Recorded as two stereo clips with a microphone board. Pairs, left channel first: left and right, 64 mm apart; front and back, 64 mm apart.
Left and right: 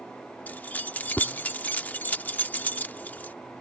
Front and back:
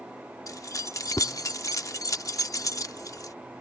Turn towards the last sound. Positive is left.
turn(degrees=30)